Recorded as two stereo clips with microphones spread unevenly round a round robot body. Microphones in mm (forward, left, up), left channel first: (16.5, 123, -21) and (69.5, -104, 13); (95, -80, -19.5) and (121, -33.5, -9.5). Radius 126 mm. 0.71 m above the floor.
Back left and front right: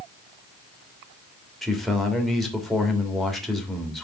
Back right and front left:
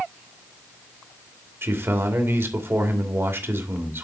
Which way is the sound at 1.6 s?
15° left.